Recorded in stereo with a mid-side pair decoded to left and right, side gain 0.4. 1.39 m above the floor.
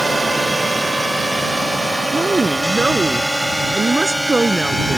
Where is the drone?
20° right; by 5.0 s 5° left.